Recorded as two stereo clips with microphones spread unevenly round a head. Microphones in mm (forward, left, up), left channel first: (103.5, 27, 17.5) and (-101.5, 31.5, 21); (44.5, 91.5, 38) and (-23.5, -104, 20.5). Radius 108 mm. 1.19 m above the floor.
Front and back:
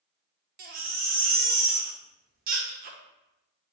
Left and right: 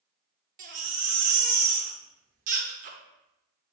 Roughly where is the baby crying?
Behind right.